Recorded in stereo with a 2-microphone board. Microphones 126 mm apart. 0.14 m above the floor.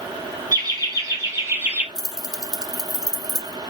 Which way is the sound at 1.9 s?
30° left (ahead or behind).